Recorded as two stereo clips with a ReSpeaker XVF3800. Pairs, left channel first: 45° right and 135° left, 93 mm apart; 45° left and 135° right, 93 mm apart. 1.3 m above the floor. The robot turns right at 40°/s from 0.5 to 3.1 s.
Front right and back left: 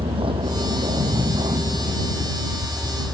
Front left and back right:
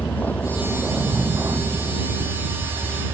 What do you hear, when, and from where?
0.0 s a vehicle: 115° left; by 3.1 s 140° right